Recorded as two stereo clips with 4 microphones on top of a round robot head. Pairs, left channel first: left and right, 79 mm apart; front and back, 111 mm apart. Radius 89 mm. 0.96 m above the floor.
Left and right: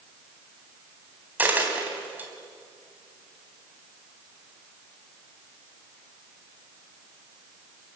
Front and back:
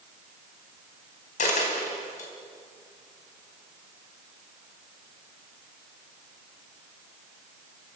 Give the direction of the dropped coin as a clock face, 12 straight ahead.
1 o'clock.